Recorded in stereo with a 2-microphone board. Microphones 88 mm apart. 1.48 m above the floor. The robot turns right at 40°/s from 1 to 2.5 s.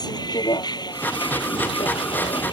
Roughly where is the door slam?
I don't hear a door slam.